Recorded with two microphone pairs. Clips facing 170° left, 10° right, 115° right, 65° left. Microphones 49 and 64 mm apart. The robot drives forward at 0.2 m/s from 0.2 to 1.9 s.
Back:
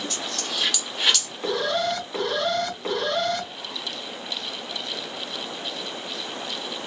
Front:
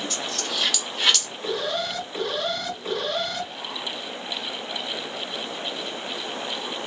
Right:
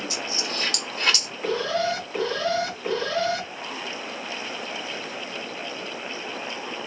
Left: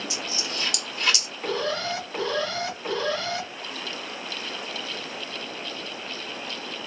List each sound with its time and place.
0.1 s a dropped coin: 100° right, 1.5 m; by 1.3 s 110° right, 1.5 m
1.4 s an alarm: 155° left, 2.5 m